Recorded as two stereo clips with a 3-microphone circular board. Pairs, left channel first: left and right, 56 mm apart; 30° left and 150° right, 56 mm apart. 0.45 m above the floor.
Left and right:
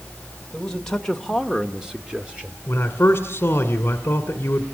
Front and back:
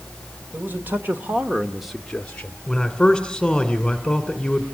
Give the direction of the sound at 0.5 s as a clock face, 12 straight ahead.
6 o'clock.